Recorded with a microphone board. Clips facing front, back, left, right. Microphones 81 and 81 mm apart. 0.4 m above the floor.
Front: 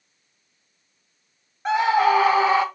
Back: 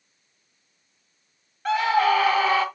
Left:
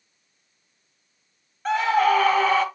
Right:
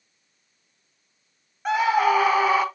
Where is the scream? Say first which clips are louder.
Front 2 dB, even; 25° right, 0.8 m.